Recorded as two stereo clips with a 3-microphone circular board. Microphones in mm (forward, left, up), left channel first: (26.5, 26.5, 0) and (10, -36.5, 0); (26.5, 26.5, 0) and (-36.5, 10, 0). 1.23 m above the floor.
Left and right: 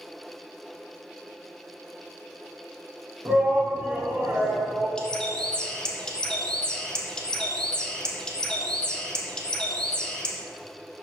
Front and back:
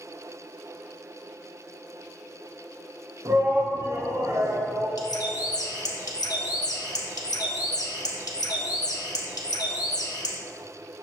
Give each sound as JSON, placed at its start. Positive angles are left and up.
{"t": 3.2, "sound": "a shout", "azimuth_deg": -155, "distance_m": 1.3}
{"t": 5.0, "sound": "a bird", "azimuth_deg": 0, "distance_m": 1.3}